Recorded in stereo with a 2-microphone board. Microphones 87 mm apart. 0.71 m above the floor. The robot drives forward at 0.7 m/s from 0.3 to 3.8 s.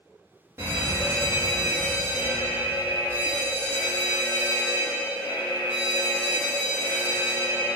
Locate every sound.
0.6 s a fire alarm: 30° right (ahead or behind), 2 m; by 7.8 s 25° right (ahead or behind), 2.5 m